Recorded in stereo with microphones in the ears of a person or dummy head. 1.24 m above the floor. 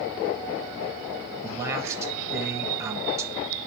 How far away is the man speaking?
About 1.3 m.